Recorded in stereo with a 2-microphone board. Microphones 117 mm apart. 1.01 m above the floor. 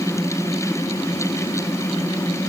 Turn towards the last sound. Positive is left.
No sound to turn to.